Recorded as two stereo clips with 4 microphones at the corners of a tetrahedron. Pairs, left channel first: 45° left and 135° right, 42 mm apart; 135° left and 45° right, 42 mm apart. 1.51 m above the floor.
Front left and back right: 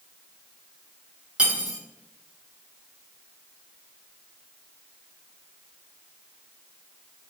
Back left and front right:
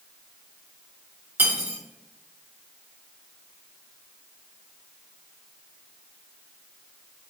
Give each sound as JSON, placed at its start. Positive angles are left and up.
{"t": 1.4, "sound": "cutlery clinking", "azimuth_deg": -75, "distance_m": 1.4}